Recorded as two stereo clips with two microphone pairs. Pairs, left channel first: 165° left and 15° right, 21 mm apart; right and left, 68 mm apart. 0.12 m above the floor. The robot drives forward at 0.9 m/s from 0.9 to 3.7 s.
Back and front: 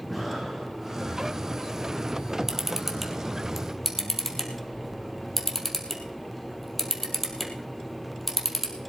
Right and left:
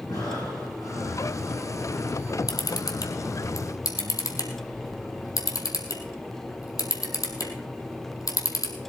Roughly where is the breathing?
Right.